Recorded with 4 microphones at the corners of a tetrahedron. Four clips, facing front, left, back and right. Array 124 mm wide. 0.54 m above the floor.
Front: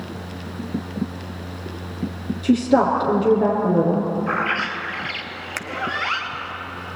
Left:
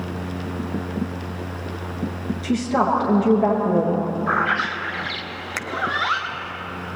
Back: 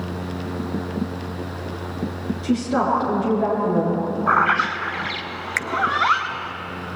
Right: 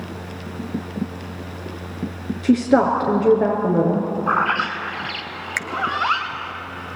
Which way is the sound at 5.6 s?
50° left.